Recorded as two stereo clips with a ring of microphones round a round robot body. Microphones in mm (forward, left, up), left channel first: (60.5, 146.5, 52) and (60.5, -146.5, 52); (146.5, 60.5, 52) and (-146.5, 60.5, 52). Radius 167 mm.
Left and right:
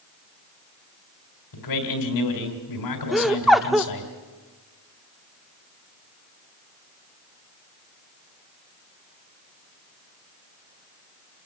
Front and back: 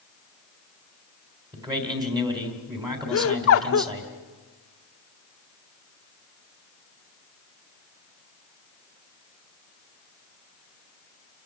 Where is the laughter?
Straight ahead, 1.0 m.